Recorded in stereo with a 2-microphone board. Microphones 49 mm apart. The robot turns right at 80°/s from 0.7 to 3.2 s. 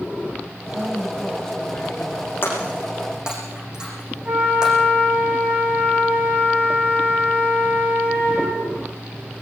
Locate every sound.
0.7 s a woman speaking: 40° right, 1.3 m; by 3.1 s 145° left, 1.3 m
2.4 s breaking glass: 45° left (ahead or behind), 9.5 m; by 4.7 s 15° right (ahead or behind), 9.5 m
4.2 s a flute: 20° right (ahead or behind), 6 m